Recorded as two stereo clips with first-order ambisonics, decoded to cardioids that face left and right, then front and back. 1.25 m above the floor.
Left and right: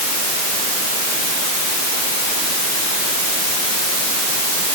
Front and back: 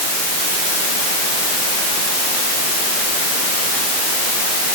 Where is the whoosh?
No whoosh in this recording.